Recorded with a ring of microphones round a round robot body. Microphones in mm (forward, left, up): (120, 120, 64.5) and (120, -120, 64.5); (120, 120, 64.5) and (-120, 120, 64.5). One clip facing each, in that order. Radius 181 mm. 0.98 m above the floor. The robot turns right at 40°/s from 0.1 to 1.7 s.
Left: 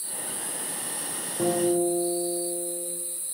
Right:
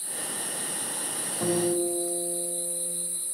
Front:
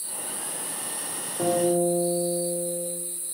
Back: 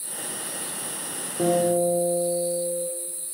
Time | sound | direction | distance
1.4 | a guitar | 120° left | 4 m